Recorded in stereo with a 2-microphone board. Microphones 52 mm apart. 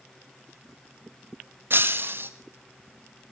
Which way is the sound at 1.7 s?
45° right (ahead or behind).